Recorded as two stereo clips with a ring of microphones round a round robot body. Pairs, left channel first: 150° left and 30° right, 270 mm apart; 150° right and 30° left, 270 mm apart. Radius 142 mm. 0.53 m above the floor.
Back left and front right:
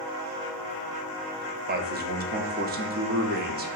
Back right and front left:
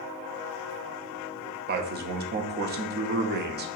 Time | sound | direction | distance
1.7 | a man speaking | 5° left | 0.8 m